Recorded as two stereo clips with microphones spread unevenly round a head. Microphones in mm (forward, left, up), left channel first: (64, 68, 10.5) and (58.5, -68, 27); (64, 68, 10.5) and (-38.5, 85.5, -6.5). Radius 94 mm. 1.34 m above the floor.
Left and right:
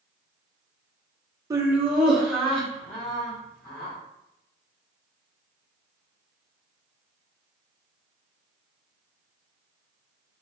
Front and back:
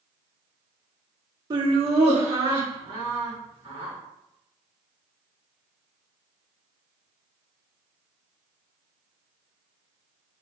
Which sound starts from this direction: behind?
Laughter, at 1.5 s.